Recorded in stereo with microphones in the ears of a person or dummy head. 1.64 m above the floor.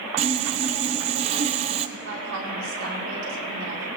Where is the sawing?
35° right (ahead or behind), 0.7 m.